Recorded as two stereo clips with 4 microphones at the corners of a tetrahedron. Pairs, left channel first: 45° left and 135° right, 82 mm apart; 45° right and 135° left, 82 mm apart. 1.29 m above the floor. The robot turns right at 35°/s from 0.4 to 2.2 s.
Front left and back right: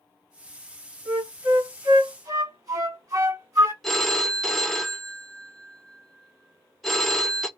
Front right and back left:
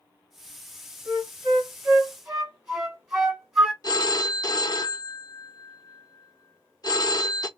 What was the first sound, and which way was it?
A flute, 175° left.